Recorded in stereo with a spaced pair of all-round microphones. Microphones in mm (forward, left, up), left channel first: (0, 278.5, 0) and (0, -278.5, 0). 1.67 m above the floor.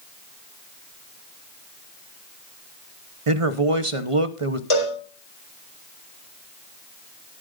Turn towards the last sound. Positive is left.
turn(degrees=60)  # may be behind; listen again after turning